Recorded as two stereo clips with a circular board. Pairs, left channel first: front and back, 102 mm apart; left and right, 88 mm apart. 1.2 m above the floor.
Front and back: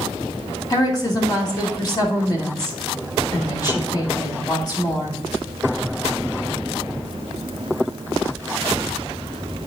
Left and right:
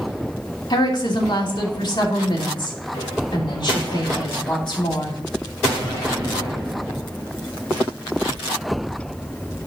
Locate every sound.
0.7 s a woman speaking: 50° left, 2.5 m